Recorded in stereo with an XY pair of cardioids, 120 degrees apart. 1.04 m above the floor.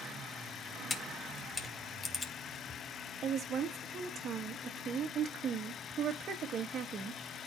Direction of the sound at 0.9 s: 30° left.